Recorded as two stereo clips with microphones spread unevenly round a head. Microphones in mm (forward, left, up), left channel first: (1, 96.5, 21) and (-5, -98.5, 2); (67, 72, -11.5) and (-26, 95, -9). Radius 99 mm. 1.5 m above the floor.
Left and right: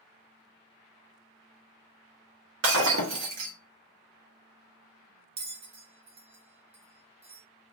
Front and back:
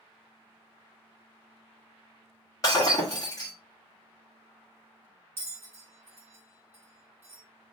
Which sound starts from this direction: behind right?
A bell, at 5.4 s.